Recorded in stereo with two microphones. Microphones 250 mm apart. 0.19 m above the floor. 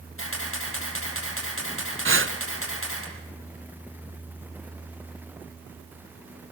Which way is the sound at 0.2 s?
60° left (ahead or behind).